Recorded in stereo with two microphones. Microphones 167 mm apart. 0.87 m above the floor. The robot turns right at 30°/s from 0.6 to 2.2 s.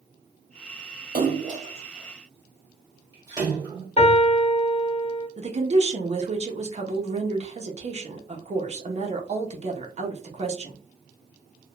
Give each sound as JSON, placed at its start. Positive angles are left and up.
{"t": 1.1, "sound": "a splash", "side_deg": -55, "distance_m": 1.5}
{"t": 4.0, "sound": "a piano", "side_deg": 40, "distance_m": 1.1}
{"t": 5.4, "sound": "a woman speaking", "side_deg": -40, "distance_m": 0.8}